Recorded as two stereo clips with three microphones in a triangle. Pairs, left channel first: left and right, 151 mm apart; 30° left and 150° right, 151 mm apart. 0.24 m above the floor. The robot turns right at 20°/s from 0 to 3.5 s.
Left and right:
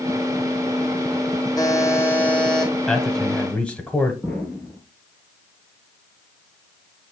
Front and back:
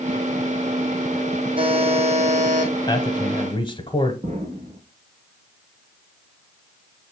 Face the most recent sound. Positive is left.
turn(degrees=170)